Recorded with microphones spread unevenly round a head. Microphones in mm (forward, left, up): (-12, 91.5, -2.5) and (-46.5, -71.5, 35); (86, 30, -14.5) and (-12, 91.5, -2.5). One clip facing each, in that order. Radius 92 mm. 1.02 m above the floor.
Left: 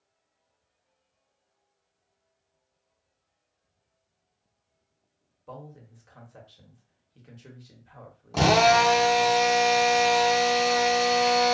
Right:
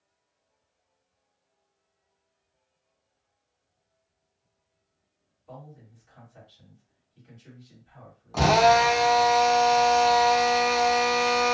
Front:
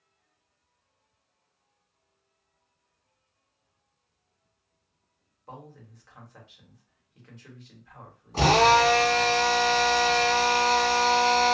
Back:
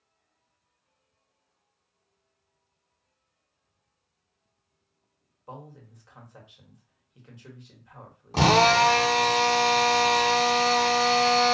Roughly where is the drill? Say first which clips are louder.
Right 1 dB, even; behind left.